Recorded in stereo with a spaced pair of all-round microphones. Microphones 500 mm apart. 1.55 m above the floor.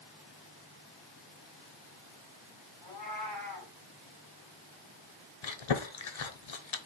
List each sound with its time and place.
2.8 s a cat meowing: 45° left (ahead or behind), 2.5 m
5.4 s chewing: 65° left (ahead or behind), 0.7 m